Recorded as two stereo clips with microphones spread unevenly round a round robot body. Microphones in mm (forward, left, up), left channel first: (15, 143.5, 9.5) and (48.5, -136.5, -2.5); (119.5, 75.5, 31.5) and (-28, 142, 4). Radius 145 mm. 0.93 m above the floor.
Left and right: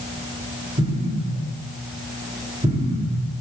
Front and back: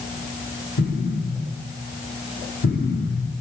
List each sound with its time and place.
0.8 s an explosion: 10° right, 1.8 m